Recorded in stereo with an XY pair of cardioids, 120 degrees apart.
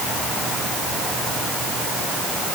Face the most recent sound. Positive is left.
No sound to turn to.